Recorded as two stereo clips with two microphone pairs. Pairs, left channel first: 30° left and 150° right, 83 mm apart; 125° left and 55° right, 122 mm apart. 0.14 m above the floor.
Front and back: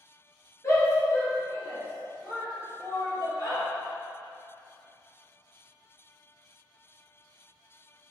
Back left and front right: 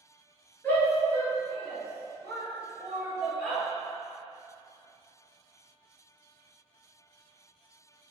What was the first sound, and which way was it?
A shout, 60° left.